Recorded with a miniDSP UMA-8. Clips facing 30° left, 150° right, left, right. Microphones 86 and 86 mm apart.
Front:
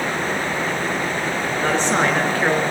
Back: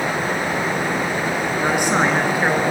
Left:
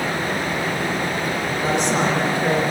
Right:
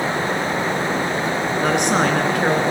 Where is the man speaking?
70° right, 3 m.